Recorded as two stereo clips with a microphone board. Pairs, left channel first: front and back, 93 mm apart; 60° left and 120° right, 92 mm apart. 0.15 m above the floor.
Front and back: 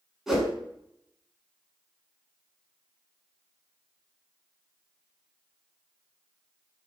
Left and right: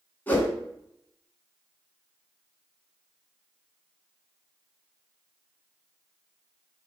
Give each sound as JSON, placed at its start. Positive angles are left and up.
{"t": 0.3, "sound": "a whoosh", "azimuth_deg": 100, "distance_m": 1.1}